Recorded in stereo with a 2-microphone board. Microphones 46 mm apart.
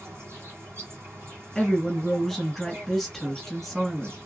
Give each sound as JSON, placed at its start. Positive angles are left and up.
{"t": 0.0, "sound": "an insect", "side_deg": -85, "distance_m": 1.9}
{"t": 1.6, "sound": "a woman speaking", "side_deg": 5, "distance_m": 1.4}